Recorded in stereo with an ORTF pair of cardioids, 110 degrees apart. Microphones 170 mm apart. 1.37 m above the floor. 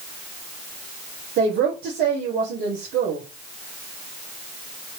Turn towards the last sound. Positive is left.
turn(degrees=-65)